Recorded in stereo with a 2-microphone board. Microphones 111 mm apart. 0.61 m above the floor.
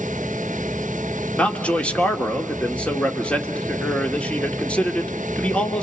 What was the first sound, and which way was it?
A man speaking, 10° left (ahead or behind).